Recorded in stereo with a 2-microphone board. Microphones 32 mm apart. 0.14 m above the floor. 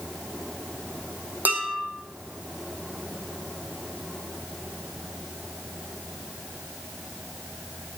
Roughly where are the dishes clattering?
Right.